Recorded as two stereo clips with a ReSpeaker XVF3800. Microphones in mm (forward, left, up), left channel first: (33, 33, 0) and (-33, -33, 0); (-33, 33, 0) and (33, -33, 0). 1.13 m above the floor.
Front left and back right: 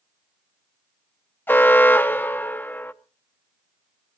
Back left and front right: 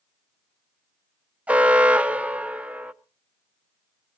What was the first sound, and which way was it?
An alarm, 15° left.